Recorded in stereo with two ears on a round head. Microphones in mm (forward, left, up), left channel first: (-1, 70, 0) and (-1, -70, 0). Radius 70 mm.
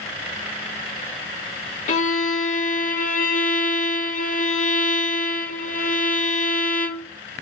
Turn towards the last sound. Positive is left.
turn(degrees=50)  # may be behind; listen again after turning